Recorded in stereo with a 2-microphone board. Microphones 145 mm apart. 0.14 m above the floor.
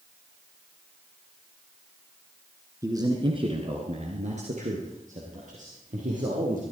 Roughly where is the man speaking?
Right.